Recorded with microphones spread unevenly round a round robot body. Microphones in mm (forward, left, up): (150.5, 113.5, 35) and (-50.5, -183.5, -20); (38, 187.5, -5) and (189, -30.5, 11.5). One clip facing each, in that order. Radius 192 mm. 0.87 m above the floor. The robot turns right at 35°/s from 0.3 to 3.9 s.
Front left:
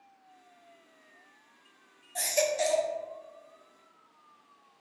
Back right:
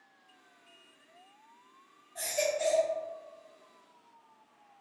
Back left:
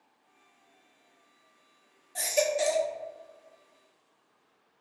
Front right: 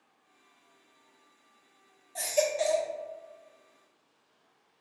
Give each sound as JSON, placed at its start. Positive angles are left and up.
{"t": 2.1, "sound": "a baby crying", "azimuth_deg": 50, "distance_m": 0.6}